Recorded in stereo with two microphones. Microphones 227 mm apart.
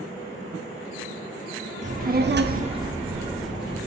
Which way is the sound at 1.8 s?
30° right (ahead or behind).